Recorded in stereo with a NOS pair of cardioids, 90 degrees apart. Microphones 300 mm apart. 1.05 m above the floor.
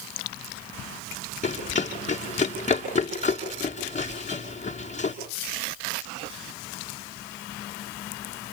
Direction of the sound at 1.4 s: 25° left.